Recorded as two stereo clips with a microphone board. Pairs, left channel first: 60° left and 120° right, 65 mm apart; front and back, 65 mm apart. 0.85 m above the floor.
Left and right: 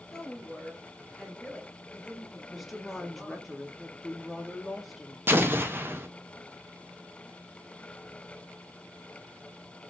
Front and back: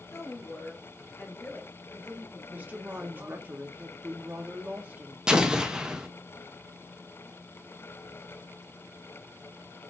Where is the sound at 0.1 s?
20° right, 1.4 m; by 3.5 s 145° left, 1.1 m.